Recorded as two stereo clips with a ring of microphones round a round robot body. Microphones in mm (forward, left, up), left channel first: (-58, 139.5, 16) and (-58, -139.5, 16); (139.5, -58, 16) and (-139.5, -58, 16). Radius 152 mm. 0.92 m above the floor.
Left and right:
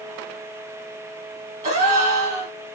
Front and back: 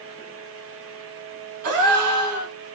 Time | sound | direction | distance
1.6 | a gasp | 155° right | 1.0 m